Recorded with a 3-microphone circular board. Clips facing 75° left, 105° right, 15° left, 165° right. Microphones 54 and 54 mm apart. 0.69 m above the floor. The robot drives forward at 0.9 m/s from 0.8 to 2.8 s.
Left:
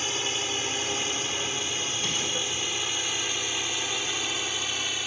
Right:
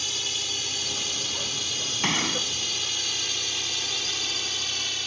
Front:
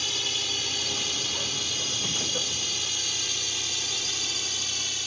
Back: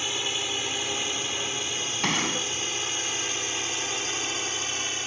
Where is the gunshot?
145° right.